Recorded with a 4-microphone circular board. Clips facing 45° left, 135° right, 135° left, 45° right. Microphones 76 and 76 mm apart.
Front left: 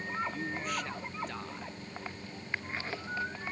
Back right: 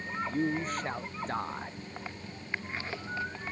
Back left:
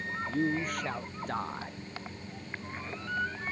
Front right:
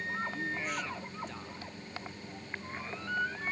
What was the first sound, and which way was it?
A man speaking, 175° left.